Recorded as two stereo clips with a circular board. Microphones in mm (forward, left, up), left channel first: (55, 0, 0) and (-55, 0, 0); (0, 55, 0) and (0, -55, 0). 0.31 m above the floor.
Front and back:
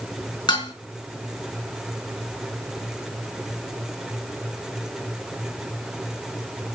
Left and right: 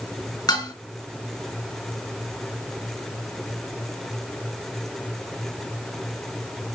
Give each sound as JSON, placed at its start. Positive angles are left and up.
{"t": 0.5, "sound": "dishes clattering", "azimuth_deg": 40, "distance_m": 2.5}